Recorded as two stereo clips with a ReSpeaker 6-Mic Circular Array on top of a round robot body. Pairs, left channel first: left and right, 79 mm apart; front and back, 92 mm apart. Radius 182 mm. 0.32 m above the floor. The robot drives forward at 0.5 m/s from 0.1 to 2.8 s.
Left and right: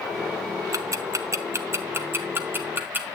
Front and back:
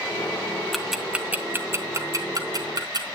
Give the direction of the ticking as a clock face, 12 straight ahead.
3 o'clock.